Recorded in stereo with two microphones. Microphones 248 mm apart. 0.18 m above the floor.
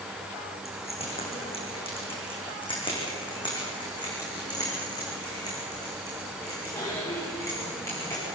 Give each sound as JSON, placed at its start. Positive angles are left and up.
{"t": 0.7, "sound": "keys jangling", "side_deg": 25, "distance_m": 9.0}